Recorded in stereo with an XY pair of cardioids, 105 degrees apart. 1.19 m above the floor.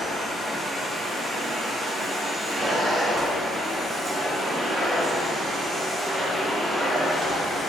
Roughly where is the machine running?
Ahead right.